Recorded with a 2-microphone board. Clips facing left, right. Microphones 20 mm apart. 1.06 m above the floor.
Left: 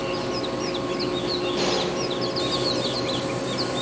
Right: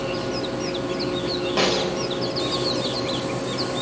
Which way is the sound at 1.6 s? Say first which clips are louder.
Right 6 dB; 80° right.